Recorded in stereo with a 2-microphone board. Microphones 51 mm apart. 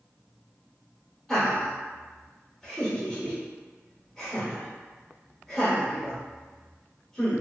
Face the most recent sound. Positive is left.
turn(degrees=10)  # may be behind; listen again after turning